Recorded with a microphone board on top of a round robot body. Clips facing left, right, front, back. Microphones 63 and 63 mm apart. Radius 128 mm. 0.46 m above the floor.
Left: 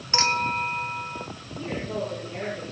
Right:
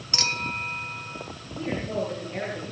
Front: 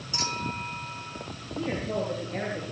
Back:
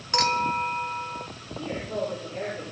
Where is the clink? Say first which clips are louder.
Left 6 dB, back 9 dB; 150° left, 1.4 m.